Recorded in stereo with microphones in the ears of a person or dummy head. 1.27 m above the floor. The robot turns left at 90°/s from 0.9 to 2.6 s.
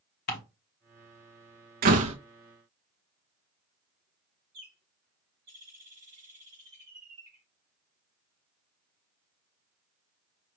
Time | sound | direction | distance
0.3 | ticking | 50° left (ahead or behind) | 1.1 m
1.8 | a door slam | 110° right | 0.5 m
4.5 | a bird | 50° right (ahead or behind) | 4 m